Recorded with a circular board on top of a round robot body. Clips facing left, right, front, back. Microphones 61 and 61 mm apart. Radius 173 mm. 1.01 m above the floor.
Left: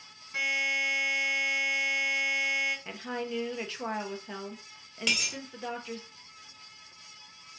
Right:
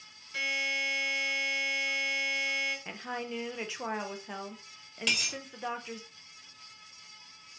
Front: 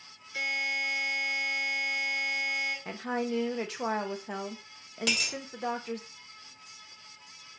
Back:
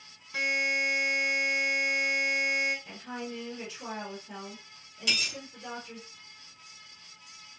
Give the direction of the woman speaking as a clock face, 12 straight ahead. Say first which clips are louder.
Left 2 dB, front 7 dB; 12 o'clock.